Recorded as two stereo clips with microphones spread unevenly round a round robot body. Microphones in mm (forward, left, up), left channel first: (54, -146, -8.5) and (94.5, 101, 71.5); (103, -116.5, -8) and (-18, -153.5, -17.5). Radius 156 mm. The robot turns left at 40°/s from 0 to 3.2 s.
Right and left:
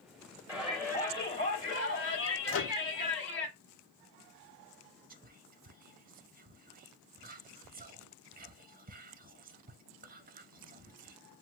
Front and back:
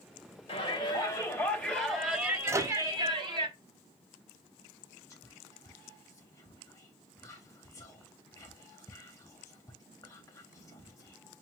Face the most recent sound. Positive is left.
turn(degrees=35)